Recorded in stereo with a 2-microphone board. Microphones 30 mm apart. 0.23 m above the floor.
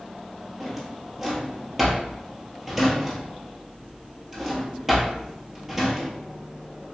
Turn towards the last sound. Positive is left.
turn(degrees=-10)  # may be behind; listen again after turning